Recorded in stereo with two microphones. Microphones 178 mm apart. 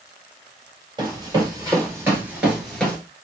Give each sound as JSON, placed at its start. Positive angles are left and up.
{"t": 1.0, "sound": "running footsteps", "side_deg": -25, "distance_m": 1.6}